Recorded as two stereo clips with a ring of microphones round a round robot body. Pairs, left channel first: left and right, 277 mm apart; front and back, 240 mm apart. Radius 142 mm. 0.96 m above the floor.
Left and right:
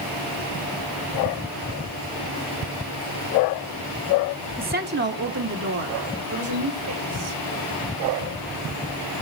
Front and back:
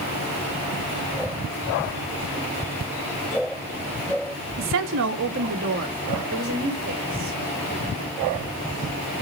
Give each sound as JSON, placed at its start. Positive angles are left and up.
{"t": 4.6, "sound": "a woman speaking", "azimuth_deg": -145, "distance_m": 1.2}